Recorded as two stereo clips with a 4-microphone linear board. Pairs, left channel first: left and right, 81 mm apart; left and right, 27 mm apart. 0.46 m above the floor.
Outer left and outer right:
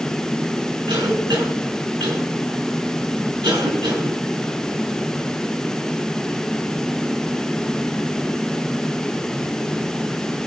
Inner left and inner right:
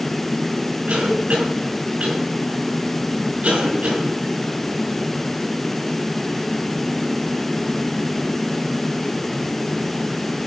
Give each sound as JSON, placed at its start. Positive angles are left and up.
{"t": 0.9, "sound": "a cough", "side_deg": -75, "distance_m": 5.5}